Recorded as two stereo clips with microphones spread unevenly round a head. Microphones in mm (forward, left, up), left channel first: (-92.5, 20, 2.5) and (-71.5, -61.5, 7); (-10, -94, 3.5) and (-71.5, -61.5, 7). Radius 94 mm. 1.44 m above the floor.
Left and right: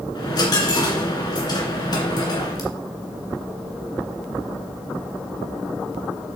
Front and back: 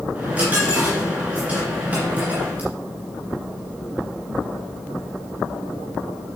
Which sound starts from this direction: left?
A dropped coin, at 0.1 s.